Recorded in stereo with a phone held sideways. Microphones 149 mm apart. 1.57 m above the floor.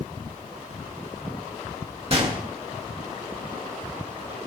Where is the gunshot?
40° right (ahead or behind), 1.6 m.